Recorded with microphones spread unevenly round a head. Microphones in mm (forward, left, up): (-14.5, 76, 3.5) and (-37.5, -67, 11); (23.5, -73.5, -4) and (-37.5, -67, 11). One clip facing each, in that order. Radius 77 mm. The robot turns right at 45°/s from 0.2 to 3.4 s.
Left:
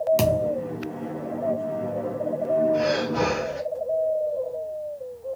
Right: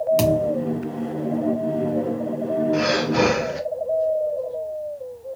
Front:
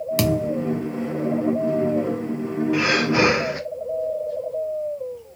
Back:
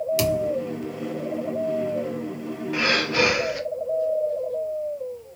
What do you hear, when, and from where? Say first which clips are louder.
0.2 s a thud: right 3 dB, front 4 dB; 10° right, 0.8 m; by 0.5 s 5° left, 0.8 m
2.7 s breathing: right 3 dB, front 2 dB; 95° right, 0.8 m; by 3.6 s 65° right, 0.8 m